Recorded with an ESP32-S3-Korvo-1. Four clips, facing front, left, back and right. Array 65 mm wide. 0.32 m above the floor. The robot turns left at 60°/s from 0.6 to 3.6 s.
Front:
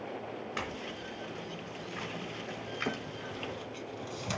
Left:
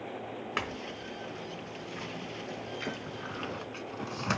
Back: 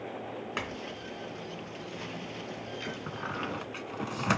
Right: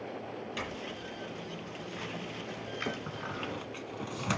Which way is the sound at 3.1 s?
165° right.